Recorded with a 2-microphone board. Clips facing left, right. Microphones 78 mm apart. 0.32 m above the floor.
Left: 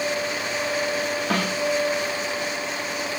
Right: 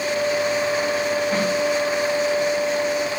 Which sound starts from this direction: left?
A snare drum, at 1.3 s.